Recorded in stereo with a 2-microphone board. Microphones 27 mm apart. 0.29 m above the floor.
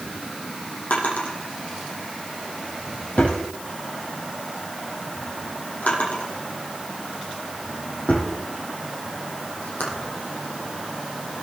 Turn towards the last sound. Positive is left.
turn(degrees=75)  # may be behind; listen again after turning